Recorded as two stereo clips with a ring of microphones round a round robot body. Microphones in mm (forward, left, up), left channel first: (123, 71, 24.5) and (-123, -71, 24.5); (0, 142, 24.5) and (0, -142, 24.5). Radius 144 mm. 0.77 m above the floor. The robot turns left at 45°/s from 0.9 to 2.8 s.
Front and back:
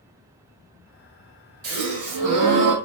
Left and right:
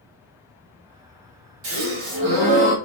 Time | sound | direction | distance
1.6 | a gasp | 115° right | 1.8 m